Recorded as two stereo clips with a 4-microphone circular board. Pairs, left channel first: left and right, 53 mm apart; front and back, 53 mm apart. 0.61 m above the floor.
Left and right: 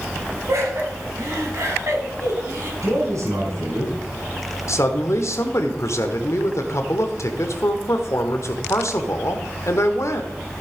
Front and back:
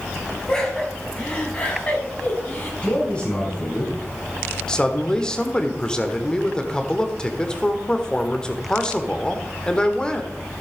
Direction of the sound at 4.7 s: 70° left.